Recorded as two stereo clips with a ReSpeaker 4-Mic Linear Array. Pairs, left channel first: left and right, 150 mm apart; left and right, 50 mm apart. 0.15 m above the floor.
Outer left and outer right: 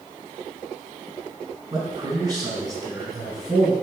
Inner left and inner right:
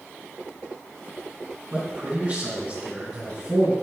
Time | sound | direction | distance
1.7 | a man speaking | 25° right (ahead or behind) | 1.5 m